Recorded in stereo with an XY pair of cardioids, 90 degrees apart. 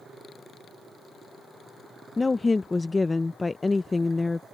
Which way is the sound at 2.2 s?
25° left.